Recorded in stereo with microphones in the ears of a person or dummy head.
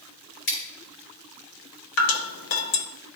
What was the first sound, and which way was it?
Scissors, 65° left (ahead or behind).